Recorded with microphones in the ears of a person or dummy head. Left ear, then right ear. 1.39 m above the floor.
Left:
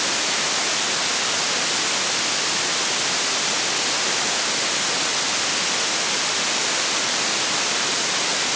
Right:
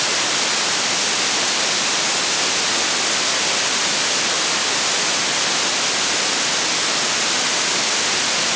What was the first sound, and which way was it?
Only background noise.